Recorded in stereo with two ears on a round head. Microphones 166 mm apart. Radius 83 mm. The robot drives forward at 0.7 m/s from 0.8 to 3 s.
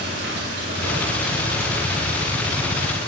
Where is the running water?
65° right (ahead or behind), 2.5 m; by 3.1 s 45° right (ahead or behind), 3 m.